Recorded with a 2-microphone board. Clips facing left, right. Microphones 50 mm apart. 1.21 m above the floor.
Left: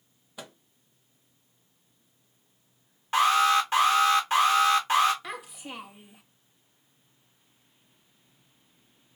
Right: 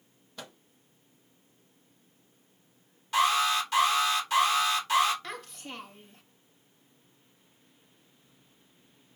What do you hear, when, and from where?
0.4 s a microwave: 10° left (ahead or behind), 0.9 m
3.1 s an alarm: 35° left (ahead or behind), 1.8 m
5.2 s a child speaking: 10° left (ahead or behind), 0.6 m